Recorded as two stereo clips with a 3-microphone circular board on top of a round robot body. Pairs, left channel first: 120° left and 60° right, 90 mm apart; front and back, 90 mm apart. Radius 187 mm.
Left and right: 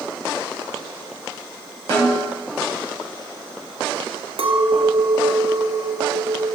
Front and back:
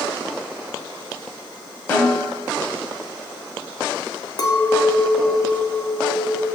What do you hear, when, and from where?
1.9 s a snare drum: 70° left, 4.5 m
4.4 s a clink: 45° right, 1.3 m